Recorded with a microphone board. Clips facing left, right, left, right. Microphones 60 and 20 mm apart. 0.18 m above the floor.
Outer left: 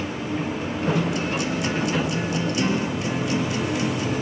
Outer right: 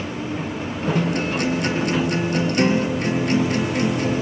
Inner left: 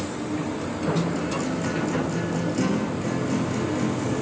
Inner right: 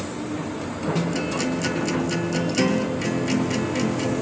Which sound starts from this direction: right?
A guitar, at 0.9 s.